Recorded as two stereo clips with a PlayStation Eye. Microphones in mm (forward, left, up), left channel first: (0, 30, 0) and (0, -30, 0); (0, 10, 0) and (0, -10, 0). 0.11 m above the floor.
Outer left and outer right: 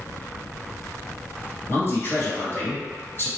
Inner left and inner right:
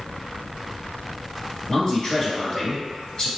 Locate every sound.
1.7 s a man speaking: 40° left (ahead or behind), 1.7 m